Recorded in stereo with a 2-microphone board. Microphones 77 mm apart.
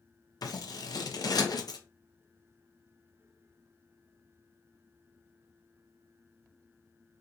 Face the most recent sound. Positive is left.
turn(degrees=60)  # may be behind; listen again after turning